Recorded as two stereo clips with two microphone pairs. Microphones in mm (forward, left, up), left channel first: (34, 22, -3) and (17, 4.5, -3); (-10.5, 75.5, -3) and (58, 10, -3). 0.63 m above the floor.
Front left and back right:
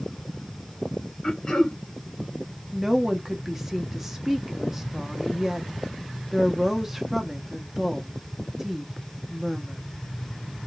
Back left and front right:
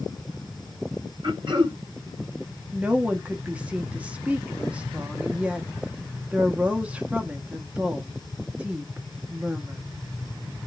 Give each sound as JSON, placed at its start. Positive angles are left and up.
{"t": 1.2, "sound": "throat clearing", "azimuth_deg": -15, "distance_m": 2.0}
{"t": 2.7, "sound": "a woman speaking", "azimuth_deg": -95, "distance_m": 0.7}